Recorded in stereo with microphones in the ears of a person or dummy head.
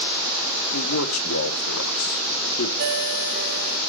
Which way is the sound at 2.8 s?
55° right (ahead or behind).